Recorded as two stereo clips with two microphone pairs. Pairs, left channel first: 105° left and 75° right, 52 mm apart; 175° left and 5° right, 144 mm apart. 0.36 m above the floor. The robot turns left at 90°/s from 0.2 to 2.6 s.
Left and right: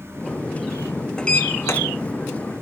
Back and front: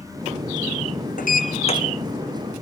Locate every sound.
1.2 s a sliding door: 175° left, 1.6 m; by 1.8 s 120° left, 1.6 m